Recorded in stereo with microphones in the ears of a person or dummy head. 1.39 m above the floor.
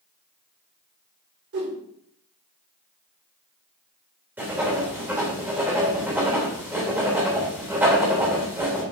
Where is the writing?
10° right (ahead or behind), 3 m.